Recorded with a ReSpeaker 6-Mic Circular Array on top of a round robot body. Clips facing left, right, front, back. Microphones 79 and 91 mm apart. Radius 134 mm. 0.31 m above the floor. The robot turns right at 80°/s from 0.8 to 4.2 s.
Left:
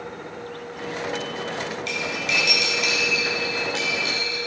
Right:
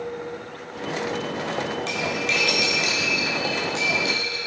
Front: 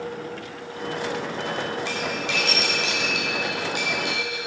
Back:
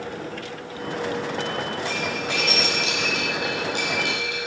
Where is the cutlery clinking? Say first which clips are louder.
Right 2 dB, back 1 dB; 30° right, 2.5 m; by 4.4 s 155° left, 2.5 m.